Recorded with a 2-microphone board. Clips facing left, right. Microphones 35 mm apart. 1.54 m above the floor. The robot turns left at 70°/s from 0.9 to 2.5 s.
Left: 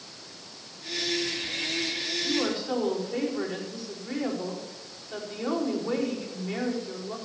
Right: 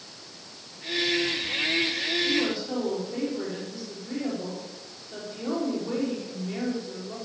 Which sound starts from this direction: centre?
A woman speaking, at 2.2 s.